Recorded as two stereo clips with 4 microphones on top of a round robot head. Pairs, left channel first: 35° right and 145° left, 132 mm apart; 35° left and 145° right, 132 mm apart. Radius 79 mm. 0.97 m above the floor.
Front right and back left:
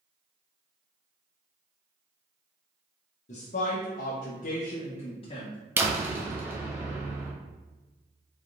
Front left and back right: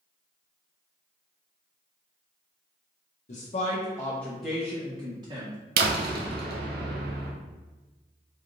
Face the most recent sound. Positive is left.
turn(degrees=-140)